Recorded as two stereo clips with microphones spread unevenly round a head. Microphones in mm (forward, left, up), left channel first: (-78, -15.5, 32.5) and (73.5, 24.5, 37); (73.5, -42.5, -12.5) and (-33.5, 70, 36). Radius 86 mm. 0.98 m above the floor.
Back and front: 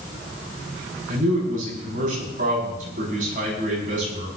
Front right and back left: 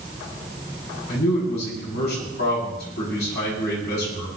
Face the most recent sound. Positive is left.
turn(degrees=-30)